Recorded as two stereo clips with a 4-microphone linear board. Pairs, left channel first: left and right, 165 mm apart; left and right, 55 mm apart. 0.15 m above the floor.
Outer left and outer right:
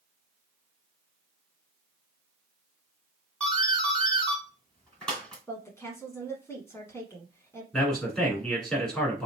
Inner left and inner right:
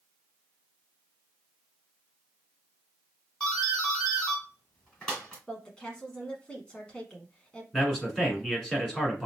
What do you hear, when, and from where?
3.4 s a doorbell: 5° left (ahead or behind), 2.5 m
5.5 s a woman speaking: 15° left (ahead or behind), 1.1 m
7.7 s a man speaking: 5° left (ahead or behind), 1.6 m